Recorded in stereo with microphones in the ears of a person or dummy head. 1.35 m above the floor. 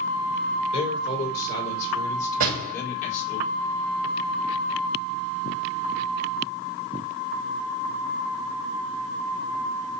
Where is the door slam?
55° right (ahead or behind), 5 m.